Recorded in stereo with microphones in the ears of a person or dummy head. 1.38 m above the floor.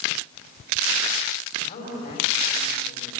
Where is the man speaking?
45° left (ahead or behind), 5.5 m.